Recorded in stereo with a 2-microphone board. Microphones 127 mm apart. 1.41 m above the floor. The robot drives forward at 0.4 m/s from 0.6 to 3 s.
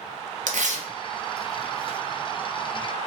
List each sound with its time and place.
0.5 s tearing paper: 75° right (ahead or behind), 0.6 m; by 2.0 s 50° right (ahead or behind), 0.8 m